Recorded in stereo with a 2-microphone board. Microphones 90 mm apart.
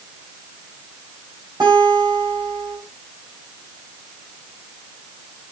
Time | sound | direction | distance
1.6 | a guitar | 45° right (ahead or behind) | 5.5 m